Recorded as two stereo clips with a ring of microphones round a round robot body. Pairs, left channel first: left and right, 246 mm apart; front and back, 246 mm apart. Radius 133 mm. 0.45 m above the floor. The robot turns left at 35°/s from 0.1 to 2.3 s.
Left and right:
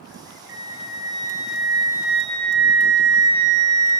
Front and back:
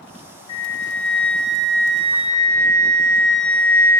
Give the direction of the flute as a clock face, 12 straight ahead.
2 o'clock.